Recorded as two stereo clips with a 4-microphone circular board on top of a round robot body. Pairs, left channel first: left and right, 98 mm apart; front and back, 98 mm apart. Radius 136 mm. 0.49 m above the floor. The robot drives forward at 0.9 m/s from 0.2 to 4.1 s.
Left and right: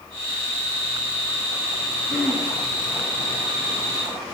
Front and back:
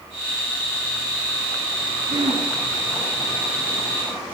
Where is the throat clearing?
175° left, 9.5 m.